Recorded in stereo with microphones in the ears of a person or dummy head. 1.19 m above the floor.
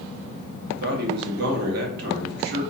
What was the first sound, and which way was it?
A man speaking, 50° right (ahead or behind).